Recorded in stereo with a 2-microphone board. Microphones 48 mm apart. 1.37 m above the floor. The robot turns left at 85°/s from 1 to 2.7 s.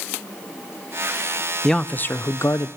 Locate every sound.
1.6 s a man speaking: 170° left, 0.5 m; by 2.7 s 85° left, 0.5 m